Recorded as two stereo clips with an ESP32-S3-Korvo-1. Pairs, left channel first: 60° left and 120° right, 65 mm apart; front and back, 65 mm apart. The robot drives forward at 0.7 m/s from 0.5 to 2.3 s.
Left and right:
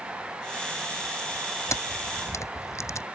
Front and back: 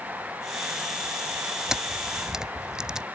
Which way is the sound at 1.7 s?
100° left.